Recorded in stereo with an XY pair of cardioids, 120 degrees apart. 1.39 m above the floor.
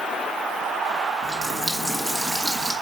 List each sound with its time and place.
1.2 s a running tap: 10° right, 1.4 m